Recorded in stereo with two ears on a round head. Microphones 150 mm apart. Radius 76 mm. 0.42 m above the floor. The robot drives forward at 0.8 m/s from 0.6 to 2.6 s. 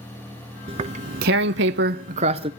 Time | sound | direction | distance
0.7 | tearing paper | 30° right (ahead or behind) | 0.9 m